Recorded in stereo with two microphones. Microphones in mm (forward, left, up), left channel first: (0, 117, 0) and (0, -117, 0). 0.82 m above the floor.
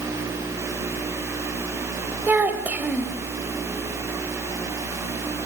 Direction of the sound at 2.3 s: 5° right (ahead or behind).